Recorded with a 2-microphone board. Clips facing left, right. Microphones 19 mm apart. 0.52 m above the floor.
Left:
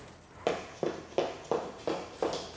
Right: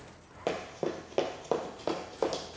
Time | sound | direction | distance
0.5 | running footsteps | 15° left (ahead or behind) | 0.6 m